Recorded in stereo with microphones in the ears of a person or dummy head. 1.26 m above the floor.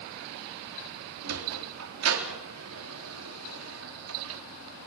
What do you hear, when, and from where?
1.2 s a sliding door: 75° right (ahead or behind), 3.5 m